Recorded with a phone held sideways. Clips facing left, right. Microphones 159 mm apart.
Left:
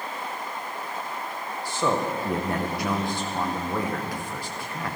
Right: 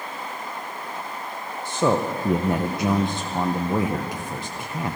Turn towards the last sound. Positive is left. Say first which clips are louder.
# right 4 dB
turn(degrees=-20)  # may be behind; listen again after turning